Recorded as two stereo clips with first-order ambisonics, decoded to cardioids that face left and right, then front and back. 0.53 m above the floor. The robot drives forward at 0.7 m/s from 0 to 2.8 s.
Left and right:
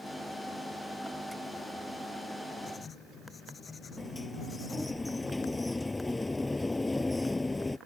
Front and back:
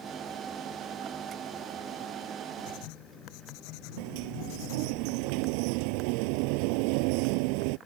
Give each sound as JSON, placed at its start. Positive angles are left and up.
{"t": 2.7, "sound": "writing", "azimuth_deg": 15}
{"t": 4.0, "sound": "a sliding door", "azimuth_deg": 175}